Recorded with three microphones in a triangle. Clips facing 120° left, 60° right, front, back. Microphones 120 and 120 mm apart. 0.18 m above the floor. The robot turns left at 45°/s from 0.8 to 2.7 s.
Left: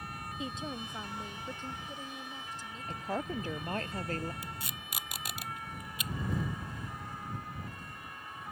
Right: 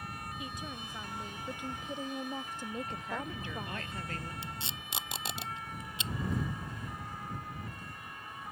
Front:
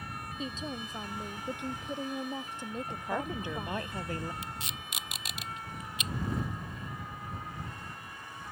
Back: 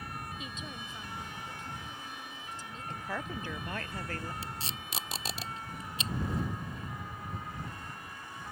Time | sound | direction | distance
0.4 | a woman speaking | 55° left | ?
2.9 | a woman speaking | 70° left | ?
4.4 | tape being pulled | 125° right | ?